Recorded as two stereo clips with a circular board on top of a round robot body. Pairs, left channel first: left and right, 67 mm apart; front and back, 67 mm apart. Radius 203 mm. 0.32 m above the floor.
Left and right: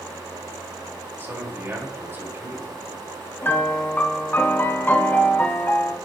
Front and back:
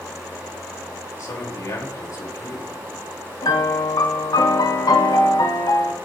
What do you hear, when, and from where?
1.2 s a man speaking: 35° right, 3.5 m
3.4 s a piano: 25° left, 1.0 m